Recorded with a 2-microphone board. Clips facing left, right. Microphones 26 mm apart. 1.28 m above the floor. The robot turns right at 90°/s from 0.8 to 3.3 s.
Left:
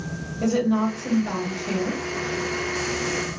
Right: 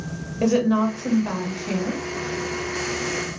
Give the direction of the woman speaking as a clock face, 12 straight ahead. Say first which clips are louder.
Right 2 dB; 3 o'clock.